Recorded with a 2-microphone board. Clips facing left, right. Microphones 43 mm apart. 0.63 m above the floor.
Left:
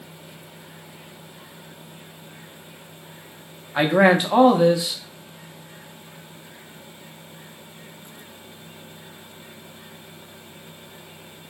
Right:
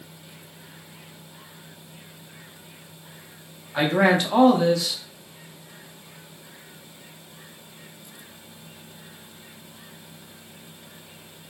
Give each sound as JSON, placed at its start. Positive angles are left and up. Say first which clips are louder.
{"t": 3.8, "sound": "a man speaking", "louder": "left 3 dB", "side_deg": 20, "distance_m": 0.5}